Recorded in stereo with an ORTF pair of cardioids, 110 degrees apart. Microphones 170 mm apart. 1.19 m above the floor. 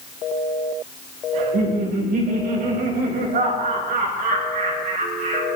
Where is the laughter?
65° right, 4 m.